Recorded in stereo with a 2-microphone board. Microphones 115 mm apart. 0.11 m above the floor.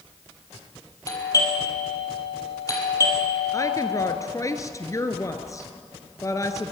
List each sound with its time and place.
1.1 s a doorbell: 30° left (ahead or behind), 4 m
3.5 s a woman speaking: 30° left (ahead or behind), 1.4 m